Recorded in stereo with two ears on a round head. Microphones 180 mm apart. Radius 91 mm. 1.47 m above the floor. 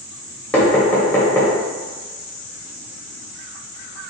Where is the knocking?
5° left (ahead or behind), 1.0 m.